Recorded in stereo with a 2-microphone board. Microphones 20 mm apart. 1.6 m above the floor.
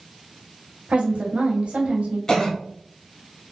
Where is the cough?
30° left (ahead or behind), 1.3 m.